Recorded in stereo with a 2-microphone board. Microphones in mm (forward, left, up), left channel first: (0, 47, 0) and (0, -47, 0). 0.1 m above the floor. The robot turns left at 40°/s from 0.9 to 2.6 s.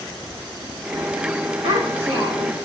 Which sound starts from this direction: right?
A child speaking, at 1.6 s.